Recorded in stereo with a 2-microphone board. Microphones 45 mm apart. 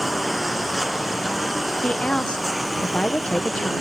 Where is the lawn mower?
5° right (ahead or behind).